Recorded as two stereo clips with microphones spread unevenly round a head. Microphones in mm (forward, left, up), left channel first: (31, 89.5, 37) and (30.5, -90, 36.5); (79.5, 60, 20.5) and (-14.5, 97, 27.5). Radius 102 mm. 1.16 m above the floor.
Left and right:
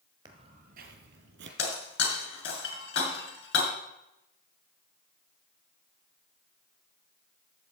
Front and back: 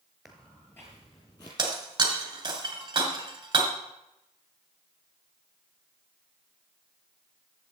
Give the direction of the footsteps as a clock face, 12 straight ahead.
4 o'clock.